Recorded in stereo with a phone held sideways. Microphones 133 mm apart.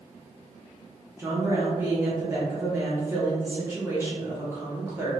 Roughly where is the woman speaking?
Centre.